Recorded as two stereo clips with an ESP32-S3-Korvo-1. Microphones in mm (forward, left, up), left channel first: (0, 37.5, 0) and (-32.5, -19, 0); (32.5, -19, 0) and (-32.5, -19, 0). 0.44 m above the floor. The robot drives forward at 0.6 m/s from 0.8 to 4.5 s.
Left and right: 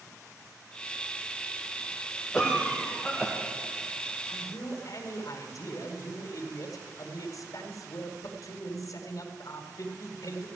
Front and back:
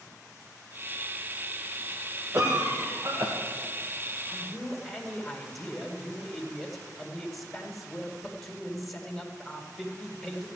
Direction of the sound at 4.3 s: 85° left.